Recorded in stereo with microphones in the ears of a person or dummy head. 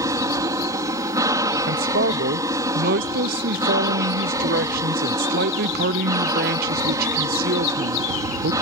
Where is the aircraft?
20° right (ahead or behind).